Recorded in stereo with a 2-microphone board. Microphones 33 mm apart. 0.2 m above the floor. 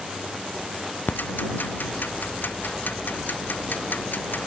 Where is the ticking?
85° left.